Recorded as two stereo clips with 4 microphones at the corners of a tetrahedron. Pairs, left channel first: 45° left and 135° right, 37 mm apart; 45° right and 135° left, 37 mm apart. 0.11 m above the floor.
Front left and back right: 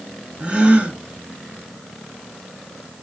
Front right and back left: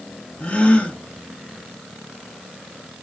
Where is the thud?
I don't hear a thud.